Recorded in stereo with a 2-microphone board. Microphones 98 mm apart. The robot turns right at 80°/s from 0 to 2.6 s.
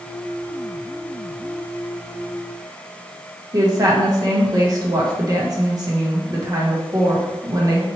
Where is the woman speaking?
40° right (ahead or behind), 1.0 m.